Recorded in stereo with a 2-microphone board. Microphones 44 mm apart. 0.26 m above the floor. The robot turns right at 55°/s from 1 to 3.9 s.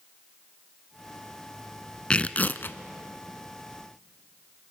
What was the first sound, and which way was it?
Tearing paper, 25° left.